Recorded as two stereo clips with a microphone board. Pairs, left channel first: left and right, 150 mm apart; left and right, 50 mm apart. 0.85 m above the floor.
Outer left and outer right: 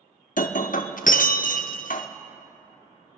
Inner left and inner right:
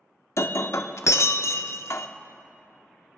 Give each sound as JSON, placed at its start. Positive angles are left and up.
{"t": 0.4, "sound": "breaking glass", "side_deg": 65, "distance_m": 0.6}